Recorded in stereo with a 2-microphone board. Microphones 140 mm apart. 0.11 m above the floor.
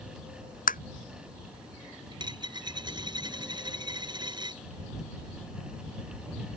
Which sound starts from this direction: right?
A dropped coin, at 2.1 s.